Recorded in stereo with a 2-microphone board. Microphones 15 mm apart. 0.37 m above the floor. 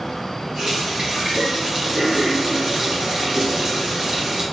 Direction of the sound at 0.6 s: 45° right (ahead or behind).